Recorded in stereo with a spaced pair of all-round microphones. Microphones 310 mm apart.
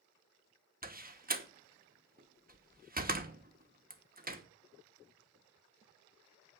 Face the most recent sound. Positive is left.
turn(degrees=-30)  # may be behind; listen again after turning